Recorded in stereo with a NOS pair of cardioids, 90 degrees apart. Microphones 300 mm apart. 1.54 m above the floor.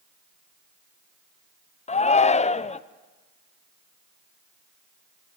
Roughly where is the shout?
Ahead.